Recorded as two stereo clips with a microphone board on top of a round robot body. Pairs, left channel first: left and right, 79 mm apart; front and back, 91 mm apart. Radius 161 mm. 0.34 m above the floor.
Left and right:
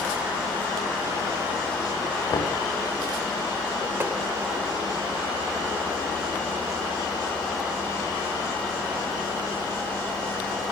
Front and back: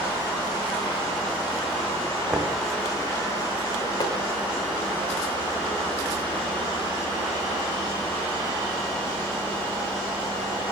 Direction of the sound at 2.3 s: 115° left.